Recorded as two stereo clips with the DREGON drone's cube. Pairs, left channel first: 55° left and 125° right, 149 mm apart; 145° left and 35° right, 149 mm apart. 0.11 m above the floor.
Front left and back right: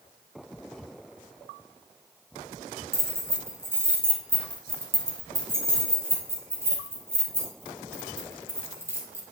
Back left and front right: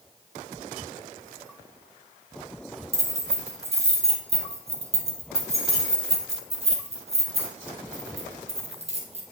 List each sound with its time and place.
2.9 s keys jangling: 55° right, 1.7 m